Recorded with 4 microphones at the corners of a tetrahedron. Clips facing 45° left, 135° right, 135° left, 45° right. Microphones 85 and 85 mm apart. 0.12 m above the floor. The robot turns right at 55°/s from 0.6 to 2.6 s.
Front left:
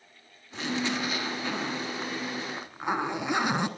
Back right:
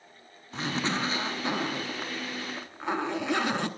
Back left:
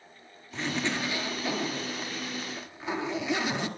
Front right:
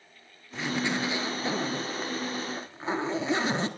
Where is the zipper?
125° right, 1.2 m; by 3.7 s 15° right, 1.2 m.